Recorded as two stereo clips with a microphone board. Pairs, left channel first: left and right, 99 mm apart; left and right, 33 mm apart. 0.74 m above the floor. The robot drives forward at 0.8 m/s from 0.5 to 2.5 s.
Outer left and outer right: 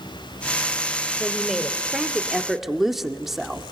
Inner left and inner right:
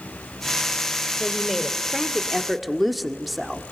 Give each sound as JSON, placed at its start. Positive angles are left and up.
{"t": 1.2, "sound": "a woman speaking", "side_deg": 0, "distance_m": 2.5}